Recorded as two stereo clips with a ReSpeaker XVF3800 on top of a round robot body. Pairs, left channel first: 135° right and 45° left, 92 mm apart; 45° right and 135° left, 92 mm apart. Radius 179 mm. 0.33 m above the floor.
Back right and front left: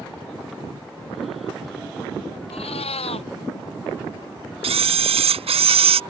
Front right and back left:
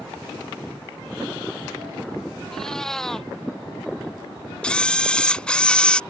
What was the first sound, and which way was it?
A cat meowing, 130° right.